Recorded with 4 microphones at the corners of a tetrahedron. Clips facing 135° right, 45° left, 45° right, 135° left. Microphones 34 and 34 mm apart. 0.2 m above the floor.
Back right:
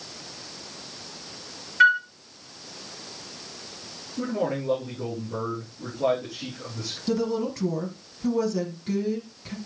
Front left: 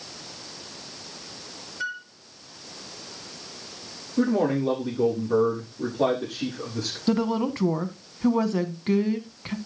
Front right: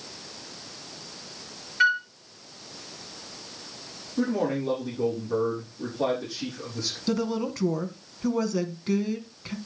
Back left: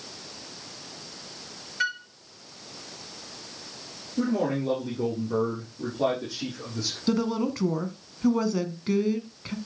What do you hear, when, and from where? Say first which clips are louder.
1.8 s a flute: back right 15 dB, front right 7 dB; 115° right, 0.5 m
4.2 s a man speaking: front left 5 dB, even; 55° left, 7.5 m
7.1 s a woman speaking: front left 2 dB, back left 2 dB; 60° left, 1.5 m